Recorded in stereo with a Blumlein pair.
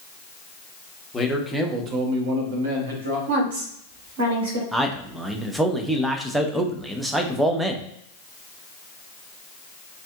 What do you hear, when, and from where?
1.1 s a man speaking: 15° left, 0.8 m; by 3.2 s 70° right, 1.3 m
3.3 s a woman speaking: 60° right, 1.7 m
4.7 s a man speaking: 10° right, 0.6 m